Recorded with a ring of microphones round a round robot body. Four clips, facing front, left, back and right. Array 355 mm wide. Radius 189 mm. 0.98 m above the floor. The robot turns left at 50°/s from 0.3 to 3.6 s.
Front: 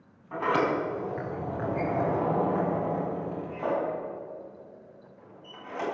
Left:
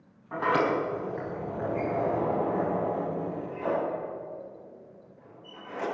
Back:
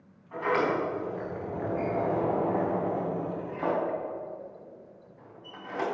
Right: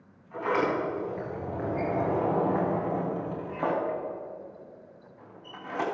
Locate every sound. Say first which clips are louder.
0.3 s a sliding door: left 2 dB, front 1 dB; 60° left, 4.5 m; by 5.8 s 105° right, 4.5 m